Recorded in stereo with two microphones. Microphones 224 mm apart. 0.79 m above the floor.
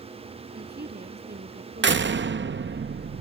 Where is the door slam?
55° right (ahead or behind).